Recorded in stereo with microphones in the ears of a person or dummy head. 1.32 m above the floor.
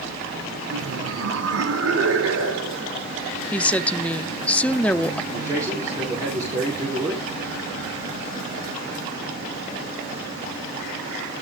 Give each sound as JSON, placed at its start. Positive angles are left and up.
{"t": 0.7, "sound": "laughter", "side_deg": -75, "distance_m": 3.0}
{"t": 3.5, "sound": "a woman speaking", "side_deg": 5, "distance_m": 0.7}
{"t": 5.3, "sound": "a man speaking", "side_deg": -25, "distance_m": 3.5}